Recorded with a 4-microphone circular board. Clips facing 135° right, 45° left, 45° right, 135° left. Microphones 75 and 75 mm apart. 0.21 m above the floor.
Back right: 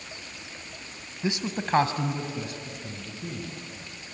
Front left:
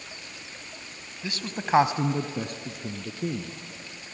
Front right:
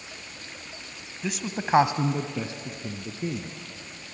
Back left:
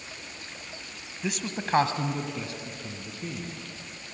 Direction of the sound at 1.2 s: 140° right.